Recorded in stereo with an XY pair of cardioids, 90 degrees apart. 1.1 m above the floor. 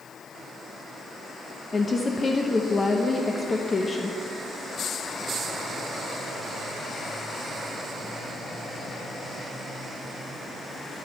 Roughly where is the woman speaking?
Ahead left.